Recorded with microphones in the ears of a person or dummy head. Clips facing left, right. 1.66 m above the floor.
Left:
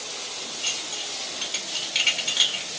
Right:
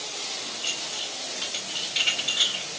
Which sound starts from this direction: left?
Dishes clattering, at 0.6 s.